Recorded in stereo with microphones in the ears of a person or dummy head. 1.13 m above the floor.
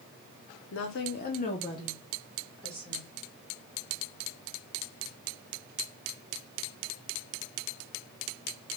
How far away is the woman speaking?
About 0.6 m.